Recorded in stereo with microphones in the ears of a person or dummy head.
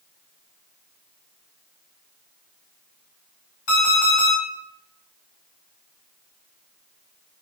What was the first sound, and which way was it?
An alarm clock, 70° left (ahead or behind).